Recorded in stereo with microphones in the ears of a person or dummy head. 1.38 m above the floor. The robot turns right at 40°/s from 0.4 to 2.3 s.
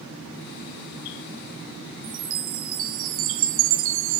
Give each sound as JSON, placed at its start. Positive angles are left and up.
{"t": 2.0, "sound": "a chime", "side_deg": -65, "distance_m": 1.1}